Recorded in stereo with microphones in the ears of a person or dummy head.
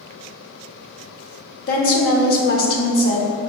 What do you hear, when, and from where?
1.7 s a woman speaking: 50° left (ahead or behind), 0.6 m